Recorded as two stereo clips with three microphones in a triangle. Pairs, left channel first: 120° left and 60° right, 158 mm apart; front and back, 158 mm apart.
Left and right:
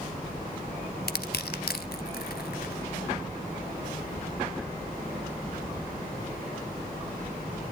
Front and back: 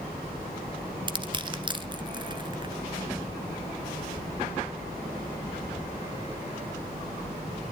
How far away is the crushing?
About 0.9 m.